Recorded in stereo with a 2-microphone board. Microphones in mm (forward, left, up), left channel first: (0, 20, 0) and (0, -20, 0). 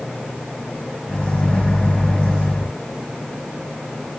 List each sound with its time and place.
1.1 s a microwave: 30° left (ahead or behind), 1.8 m